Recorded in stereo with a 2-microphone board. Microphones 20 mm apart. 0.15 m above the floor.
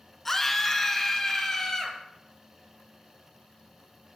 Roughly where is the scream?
Centre.